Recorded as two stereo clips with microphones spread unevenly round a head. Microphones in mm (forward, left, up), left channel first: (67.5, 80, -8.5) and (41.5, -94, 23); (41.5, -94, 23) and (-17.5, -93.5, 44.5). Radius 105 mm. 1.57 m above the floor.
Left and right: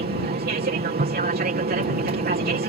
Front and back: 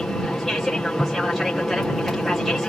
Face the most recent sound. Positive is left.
turn(degrees=-75)